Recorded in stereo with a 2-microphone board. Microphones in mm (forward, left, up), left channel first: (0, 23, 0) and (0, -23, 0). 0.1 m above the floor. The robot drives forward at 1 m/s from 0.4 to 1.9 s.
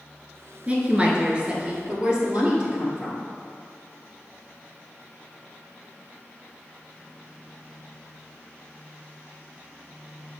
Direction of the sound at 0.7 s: 25° right (ahead or behind).